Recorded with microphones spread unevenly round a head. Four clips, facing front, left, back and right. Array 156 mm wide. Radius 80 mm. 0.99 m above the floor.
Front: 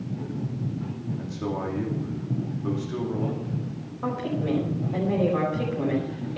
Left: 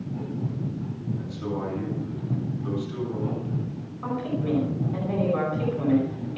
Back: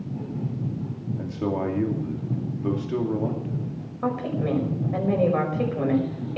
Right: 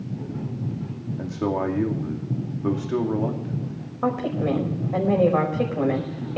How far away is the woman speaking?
About 5.5 m.